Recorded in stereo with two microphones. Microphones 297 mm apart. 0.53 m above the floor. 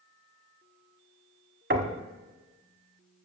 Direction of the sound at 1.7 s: 40° right (ahead or behind).